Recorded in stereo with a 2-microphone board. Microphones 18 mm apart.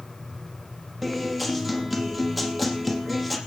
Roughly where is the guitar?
Centre.